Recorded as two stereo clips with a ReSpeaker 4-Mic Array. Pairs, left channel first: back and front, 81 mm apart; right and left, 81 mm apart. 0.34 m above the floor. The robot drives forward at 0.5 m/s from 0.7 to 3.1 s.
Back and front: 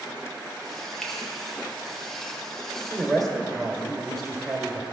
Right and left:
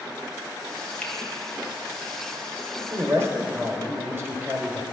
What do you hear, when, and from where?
1.0 s a finger snap: 110° right, 1.2 m; by 1.1 s 115° right, 1.2 m
2.9 s a man speaking: 85° left, 1.1 m; by 4.8 s 95° left, 1.1 m